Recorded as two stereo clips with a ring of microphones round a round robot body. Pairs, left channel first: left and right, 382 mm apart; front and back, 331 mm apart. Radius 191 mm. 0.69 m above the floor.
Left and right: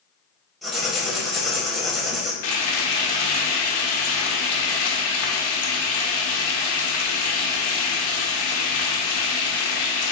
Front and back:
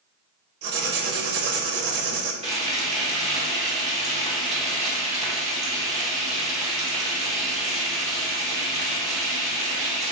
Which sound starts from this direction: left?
Frying, at 2.4 s.